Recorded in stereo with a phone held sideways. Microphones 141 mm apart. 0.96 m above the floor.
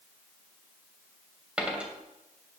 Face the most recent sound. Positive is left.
turn(degrees=-10)  # may be behind; listen again after turning